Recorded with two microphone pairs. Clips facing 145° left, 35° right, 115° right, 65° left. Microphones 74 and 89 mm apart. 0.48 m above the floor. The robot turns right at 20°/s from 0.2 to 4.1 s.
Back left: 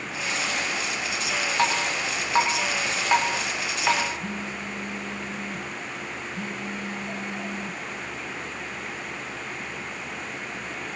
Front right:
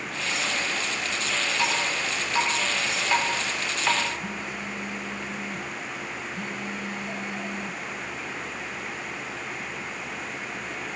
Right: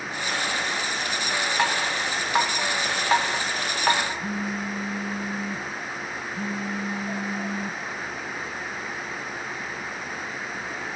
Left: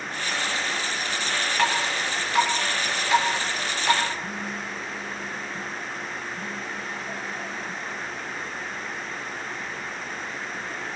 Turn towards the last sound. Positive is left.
turn(degrees=-155)